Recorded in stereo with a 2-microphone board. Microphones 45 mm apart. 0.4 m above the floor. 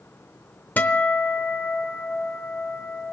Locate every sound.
0.8 s a guitar: 40° left (ahead or behind), 0.8 m